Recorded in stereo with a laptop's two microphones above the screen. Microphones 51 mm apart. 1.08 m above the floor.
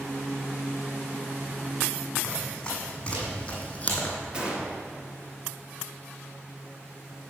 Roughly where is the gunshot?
Right.